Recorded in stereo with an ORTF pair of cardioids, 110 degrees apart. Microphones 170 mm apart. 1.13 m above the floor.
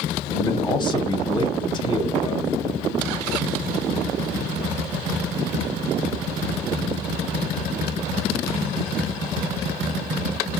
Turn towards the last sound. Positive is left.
turn(degrees=25)